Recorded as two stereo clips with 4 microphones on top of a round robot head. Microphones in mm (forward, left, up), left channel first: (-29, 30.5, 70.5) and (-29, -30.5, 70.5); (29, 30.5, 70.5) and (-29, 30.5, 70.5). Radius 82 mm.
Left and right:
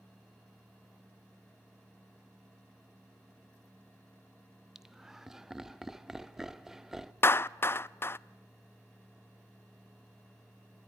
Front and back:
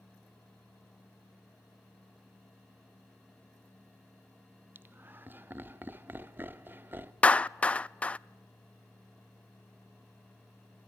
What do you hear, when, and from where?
4.8 s laughter: 170° right, 1.2 m
7.2 s a clap: 60° left, 0.5 m